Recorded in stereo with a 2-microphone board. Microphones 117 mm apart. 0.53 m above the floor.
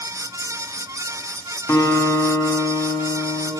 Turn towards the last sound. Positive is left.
turn(degrees=20)  # may be behind; listen again after turning